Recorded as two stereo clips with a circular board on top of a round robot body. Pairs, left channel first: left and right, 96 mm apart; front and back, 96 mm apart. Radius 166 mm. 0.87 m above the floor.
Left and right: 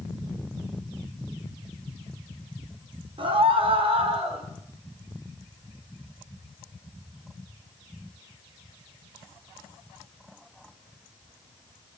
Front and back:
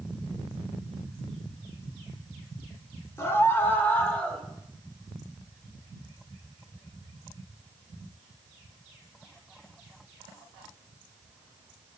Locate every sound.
3.2 s a scream: 65° right, 4 m; by 4.4 s 80° right, 5 m